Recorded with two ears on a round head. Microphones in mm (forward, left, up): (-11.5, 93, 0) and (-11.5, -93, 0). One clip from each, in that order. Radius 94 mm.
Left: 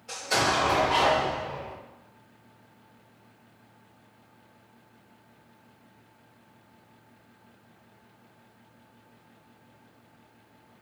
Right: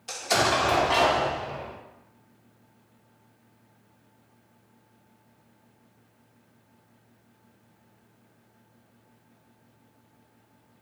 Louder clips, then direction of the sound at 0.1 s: Right 2 dB; 65° right (ahead or behind).